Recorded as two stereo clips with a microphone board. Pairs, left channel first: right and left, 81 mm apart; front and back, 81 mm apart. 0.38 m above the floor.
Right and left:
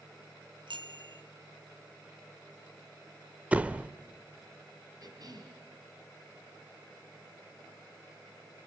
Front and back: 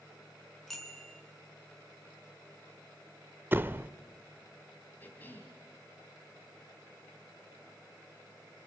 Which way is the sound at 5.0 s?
65° left.